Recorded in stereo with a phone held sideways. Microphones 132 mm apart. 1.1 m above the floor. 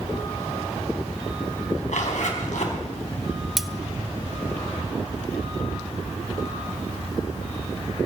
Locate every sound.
1.9 s a zipper: 75° left (ahead or behind), 3.5 m
3.6 s cutlery clinking: centre (ahead or behind), 0.5 m